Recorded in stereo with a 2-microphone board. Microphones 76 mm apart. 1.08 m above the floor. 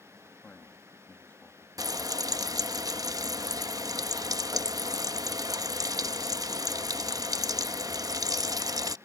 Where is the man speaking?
25° left (ahead or behind).